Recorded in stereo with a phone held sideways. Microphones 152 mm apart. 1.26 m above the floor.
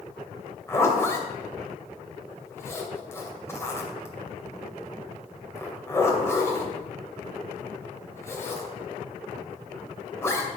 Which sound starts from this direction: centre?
A zipper, at 0.7 s.